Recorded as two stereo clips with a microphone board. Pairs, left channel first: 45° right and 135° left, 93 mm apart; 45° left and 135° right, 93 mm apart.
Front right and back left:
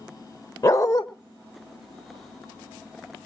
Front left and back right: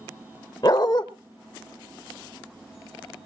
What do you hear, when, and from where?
0.6 s a dog barking: 5° left, 1.2 m